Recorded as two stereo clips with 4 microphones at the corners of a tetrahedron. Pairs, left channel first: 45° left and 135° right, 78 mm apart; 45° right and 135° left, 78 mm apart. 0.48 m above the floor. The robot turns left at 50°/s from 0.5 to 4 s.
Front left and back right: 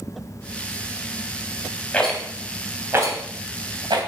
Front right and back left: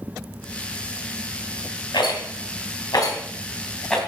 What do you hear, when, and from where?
1.9 s a rattle: 30° right, 2.5 m; by 4.0 s 130° right, 2.5 m